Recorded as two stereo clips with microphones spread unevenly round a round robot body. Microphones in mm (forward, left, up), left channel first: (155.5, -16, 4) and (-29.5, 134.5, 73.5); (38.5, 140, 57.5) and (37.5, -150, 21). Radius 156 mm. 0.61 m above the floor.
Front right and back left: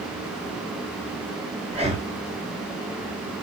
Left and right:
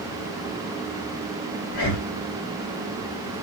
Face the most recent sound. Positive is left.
turn(degrees=65)